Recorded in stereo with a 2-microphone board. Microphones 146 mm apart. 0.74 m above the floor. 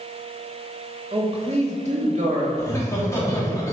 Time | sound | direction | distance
1.1 | a man speaking | 25° right (ahead or behind) | 1.0 m
2.6 | laughter | 20° left (ahead or behind) | 1.5 m